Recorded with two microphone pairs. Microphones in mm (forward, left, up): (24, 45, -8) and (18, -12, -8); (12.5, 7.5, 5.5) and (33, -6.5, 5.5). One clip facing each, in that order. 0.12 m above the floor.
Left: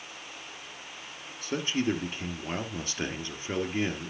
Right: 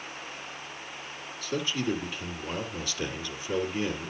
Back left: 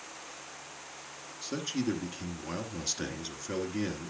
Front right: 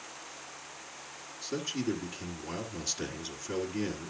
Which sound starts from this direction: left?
A man speaking, at 1.4 s.